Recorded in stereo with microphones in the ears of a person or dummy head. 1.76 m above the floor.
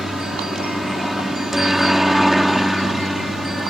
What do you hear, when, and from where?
0.0 s a helicopter: 5° right (ahead or behind)